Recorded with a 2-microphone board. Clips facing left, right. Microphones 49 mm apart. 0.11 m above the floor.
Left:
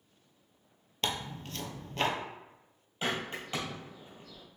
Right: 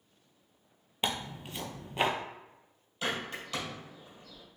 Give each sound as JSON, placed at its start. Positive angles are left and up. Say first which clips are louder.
{"t": 1.0, "sound": "tearing paper", "louder": "right 1 dB", "side_deg": -10, "distance_m": 0.6}
{"t": 3.0, "sound": "a bird", "louder": "left 1 dB", "side_deg": 25, "distance_m": 1.8}